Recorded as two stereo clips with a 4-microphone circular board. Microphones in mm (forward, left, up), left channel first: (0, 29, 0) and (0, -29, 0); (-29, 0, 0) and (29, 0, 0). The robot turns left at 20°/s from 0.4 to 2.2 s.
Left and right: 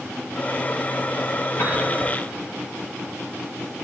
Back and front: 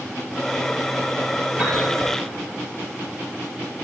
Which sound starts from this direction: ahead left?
A piano, at 1.6 s.